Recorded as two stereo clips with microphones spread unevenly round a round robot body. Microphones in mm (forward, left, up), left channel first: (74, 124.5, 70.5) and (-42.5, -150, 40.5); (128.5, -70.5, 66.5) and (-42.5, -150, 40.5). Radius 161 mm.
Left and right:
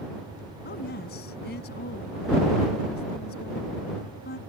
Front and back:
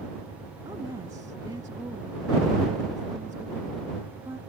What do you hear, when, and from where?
0.7 s a woman speaking: 125° left